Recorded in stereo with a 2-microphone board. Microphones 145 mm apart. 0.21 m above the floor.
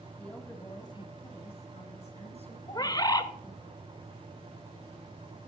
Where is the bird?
25° left (ahead or behind), 0.6 m.